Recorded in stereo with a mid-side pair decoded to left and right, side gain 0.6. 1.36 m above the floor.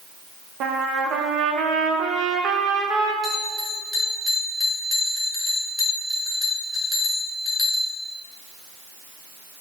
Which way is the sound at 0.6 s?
55° right.